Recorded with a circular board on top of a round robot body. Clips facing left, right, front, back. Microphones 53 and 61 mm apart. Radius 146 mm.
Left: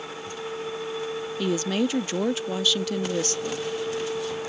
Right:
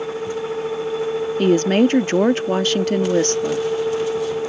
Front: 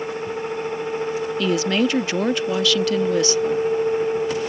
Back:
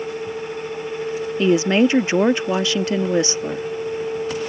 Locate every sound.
1.4 s a woman speaking: 120° right